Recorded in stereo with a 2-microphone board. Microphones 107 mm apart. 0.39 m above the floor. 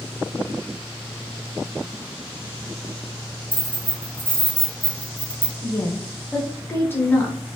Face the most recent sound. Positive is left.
turn(degrees=20)  # may be behind; listen again after turning